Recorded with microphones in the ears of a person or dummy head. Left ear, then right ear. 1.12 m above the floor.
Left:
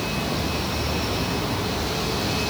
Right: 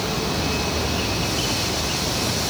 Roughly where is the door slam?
I don't hear a door slam.